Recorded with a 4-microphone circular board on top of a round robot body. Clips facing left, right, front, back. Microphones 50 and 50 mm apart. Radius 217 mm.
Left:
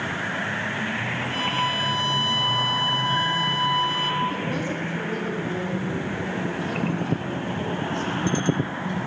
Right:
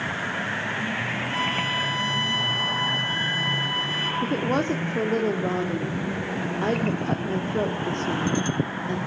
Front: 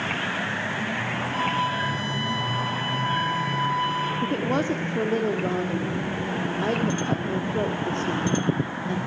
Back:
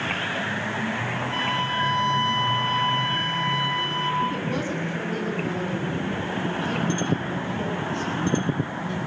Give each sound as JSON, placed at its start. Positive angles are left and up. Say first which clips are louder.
{"t": 1.3, "sound": "a flute", "louder": "left 1 dB, front 1 dB", "azimuth_deg": -155, "distance_m": 5.5}
{"t": 4.2, "sound": "a woman speaking", "louder": "right 2 dB, front 2 dB", "azimuth_deg": -50, "distance_m": 2.5}